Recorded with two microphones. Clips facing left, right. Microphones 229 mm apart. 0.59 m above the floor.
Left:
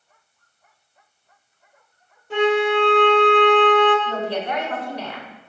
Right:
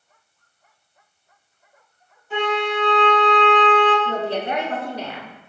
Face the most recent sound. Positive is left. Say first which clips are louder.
# right 1 dB
turn(degrees=-25)  # may be behind; listen again after turning